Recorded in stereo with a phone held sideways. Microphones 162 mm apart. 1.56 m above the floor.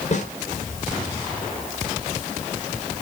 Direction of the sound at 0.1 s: 50° left (ahead or behind).